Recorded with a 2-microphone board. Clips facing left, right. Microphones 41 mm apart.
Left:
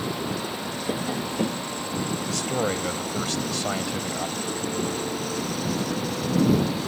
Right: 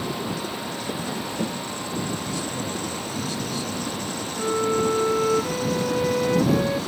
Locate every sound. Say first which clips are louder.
0.9 s tapping: left 3 dB; 20° left (ahead or behind)
2.3 s a man speaking: left 3 dB; 75° left (ahead or behind)
4.4 s a violin: right 6 dB; 85° right